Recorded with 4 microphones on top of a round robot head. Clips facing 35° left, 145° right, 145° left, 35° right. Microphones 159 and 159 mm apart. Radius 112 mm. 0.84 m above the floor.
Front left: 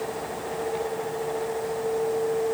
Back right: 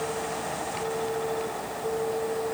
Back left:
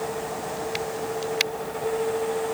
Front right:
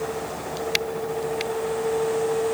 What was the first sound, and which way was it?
Only background noise.